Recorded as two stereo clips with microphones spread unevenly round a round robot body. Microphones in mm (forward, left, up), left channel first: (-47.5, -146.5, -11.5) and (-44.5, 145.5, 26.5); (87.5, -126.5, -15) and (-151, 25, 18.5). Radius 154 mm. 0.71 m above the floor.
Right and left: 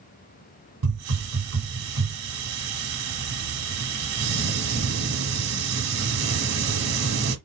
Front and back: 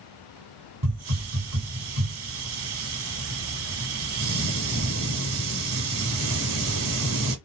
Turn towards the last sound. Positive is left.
turn(degrees=110)